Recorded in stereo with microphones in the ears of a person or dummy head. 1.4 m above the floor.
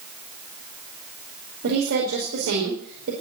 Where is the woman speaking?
80° right, 5 m.